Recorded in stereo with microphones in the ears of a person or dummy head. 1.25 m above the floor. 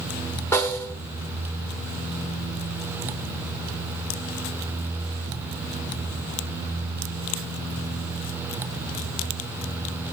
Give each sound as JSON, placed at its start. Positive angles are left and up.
{"t": 0.5, "sound": "a snare drum", "side_deg": 5, "distance_m": 1.2}